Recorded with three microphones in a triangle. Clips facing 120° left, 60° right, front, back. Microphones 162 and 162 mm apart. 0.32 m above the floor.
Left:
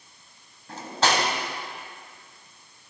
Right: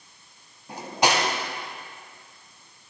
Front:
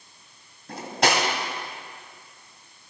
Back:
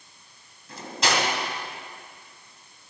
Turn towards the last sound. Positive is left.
turn(degrees=15)